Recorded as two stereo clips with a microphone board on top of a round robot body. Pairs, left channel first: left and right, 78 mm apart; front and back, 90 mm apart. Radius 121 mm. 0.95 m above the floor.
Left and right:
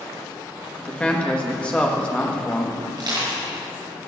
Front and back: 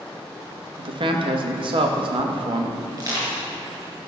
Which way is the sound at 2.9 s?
130° right.